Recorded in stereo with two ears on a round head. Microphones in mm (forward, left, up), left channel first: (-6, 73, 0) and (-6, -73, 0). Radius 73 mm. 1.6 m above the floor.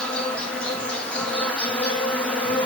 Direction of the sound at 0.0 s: 5° left (ahead or behind).